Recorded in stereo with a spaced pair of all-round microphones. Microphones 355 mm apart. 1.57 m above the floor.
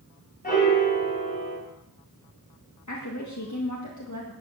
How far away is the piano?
About 5.5 m.